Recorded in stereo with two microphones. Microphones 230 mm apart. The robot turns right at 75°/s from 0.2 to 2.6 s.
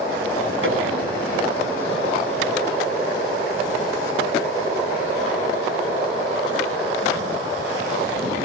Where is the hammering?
60° right (ahead or behind), 9 m; by 0.8 s 75° right (ahead or behind), 9 m.